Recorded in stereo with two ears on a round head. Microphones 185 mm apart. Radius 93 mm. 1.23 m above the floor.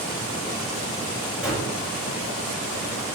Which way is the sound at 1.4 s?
5° right (ahead or behind).